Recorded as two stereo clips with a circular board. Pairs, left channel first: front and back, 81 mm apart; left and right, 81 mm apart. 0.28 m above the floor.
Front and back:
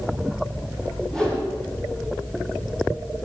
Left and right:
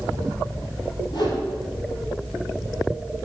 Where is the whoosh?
80° left, 6 m.